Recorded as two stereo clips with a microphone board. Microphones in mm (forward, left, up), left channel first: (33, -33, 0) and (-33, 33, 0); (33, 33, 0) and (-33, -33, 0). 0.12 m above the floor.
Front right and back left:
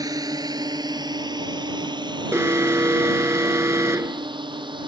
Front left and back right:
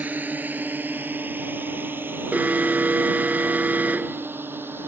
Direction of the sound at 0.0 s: 160° left.